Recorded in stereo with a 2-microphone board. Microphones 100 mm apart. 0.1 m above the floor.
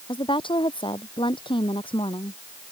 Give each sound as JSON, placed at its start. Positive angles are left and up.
{"t": 0.1, "sound": "a woman speaking", "side_deg": 55}